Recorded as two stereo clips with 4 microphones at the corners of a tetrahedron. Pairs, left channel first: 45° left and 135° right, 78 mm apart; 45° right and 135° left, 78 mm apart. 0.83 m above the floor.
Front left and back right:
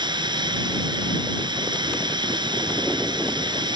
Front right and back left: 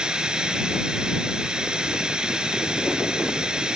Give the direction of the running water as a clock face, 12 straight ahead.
5 o'clock.